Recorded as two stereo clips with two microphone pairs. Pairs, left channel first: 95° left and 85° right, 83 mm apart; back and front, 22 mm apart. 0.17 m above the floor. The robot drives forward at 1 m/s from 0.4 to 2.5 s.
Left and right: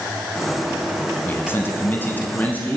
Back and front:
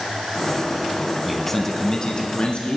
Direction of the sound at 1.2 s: 80° left.